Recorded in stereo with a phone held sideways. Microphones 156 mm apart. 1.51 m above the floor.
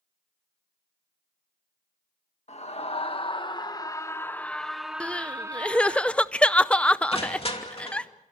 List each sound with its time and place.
2.5 s a scream: 50° left (ahead or behind), 1.7 m; by 6.0 s 30° right (ahead or behind), 1.3 m
5.0 s crying: 10° left (ahead or behind), 0.6 m
7.1 s crushing: 40° left (ahead or behind), 2.5 m